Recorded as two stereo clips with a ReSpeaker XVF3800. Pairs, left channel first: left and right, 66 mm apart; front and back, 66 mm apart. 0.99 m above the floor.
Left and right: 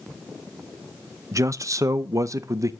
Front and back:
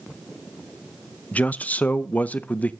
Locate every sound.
1.3 s a man speaking: 65° right, 0.6 m